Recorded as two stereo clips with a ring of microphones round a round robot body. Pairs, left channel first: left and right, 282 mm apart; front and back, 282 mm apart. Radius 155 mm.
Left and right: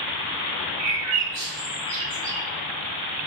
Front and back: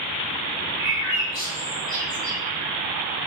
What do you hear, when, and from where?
0.8 s a bird: 175° right, 2.5 m